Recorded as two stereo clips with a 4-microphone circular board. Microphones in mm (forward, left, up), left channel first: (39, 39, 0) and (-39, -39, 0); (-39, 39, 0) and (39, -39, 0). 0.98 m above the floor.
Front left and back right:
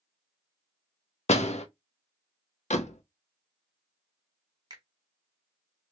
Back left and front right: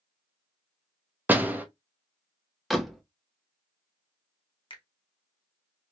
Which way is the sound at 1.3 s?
30° left.